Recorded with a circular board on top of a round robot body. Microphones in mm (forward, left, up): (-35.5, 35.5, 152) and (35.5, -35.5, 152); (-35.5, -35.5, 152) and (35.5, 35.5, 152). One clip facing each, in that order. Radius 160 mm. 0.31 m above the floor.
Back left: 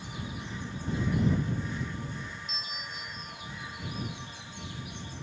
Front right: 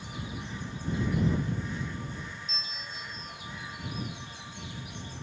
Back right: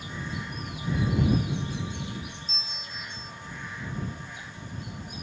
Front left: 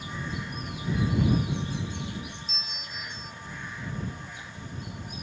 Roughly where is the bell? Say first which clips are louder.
Back left 1 dB, even; behind right.